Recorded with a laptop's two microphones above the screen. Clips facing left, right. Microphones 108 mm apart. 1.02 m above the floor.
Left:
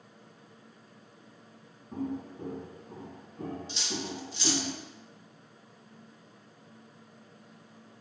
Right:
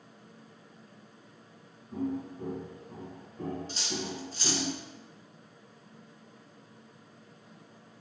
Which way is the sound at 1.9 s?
30° left (ahead or behind).